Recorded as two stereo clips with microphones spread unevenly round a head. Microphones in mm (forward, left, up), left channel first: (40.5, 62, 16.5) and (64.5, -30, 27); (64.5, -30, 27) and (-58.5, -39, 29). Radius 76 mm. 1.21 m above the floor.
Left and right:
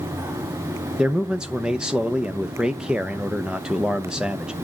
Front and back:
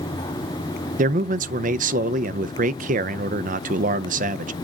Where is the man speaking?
160° right, 0.6 m.